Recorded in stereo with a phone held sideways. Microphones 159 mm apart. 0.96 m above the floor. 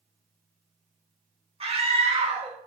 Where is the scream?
40° right (ahead or behind), 1.1 m.